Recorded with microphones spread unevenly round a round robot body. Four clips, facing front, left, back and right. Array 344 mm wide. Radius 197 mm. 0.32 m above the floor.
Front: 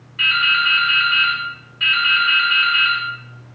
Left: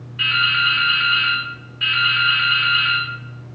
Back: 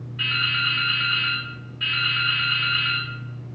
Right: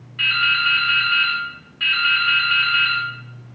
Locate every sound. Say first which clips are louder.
0.2 s dripping: left 1 dB, front 8 dB; 125° right, 0.6 m